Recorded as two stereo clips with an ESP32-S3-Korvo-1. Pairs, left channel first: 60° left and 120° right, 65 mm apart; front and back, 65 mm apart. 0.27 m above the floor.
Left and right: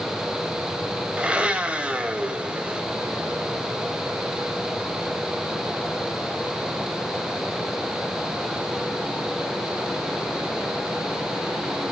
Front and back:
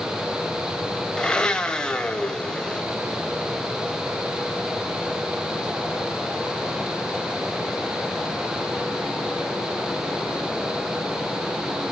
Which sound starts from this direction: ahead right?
A blender, at 1.2 s.